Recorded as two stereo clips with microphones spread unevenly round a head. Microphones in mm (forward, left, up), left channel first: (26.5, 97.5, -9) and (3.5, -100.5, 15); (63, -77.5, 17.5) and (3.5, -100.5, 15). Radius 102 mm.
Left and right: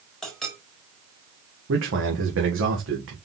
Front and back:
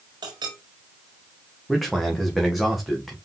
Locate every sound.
0.2 s a clink: 175° left, 1.9 m
1.7 s a man speaking: 70° right, 1.9 m